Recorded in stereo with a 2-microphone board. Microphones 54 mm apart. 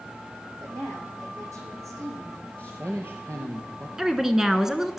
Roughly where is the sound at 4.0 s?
Centre.